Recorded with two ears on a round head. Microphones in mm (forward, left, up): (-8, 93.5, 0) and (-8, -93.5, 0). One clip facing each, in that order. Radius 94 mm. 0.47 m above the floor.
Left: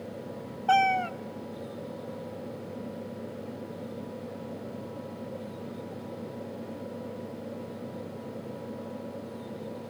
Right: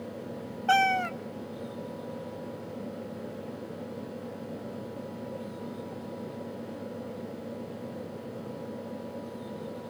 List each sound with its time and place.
0.7 s a cat meowing: 20° right (ahead or behind), 0.6 m